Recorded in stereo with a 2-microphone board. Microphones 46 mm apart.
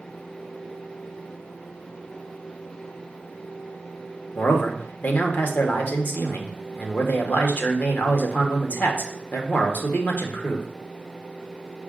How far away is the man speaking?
About 0.9 m.